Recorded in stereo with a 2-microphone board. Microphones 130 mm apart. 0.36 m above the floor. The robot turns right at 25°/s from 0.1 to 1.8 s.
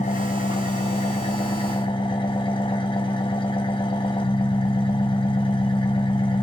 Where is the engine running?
95° left, 1.3 m; by 6.4 s 140° left, 1.3 m.